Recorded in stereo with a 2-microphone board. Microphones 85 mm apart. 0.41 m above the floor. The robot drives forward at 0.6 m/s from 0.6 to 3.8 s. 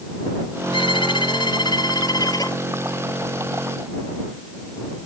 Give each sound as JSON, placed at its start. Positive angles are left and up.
{"t": 0.7, "sound": "a violin", "side_deg": 80}